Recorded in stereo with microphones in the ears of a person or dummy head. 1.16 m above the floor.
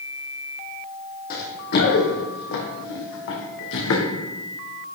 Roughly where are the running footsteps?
Left.